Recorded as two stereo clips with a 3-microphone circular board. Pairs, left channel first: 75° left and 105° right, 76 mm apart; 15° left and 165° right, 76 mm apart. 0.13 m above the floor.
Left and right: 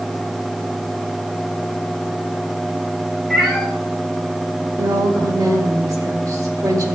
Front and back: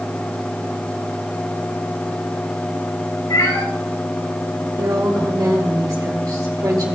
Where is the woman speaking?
140° right, 4.5 m.